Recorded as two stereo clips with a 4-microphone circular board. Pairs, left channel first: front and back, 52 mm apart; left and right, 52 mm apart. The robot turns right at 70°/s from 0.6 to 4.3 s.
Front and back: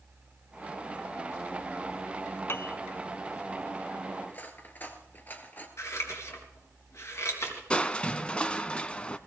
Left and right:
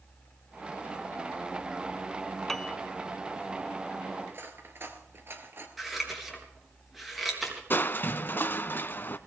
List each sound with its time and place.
2.5 s a piano: 10° left, 0.7 m; by 2.8 s 30° left, 0.7 m
4.3 s cutlery clinking: 50° right, 2.0 m
5.8 s scissors: straight ahead, 4 m
7.7 s crushing: 65° left, 0.9 m